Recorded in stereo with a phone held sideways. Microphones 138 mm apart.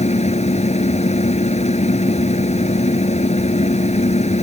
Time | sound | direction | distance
0.0 | a machine running | 55° left (ahead or behind) | ?